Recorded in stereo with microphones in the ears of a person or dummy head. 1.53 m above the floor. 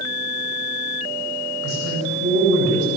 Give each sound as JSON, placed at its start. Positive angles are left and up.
{"t": 1.6, "sound": "a woman speaking", "side_deg": -75, "distance_m": 9.0}